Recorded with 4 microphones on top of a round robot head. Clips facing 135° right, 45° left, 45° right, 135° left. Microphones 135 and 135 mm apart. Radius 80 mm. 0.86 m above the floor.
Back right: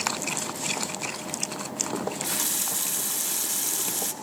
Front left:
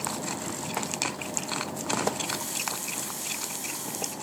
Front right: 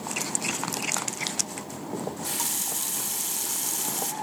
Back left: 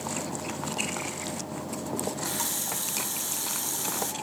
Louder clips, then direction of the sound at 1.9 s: Front left 1 dB, front right 1 dB; 130° right.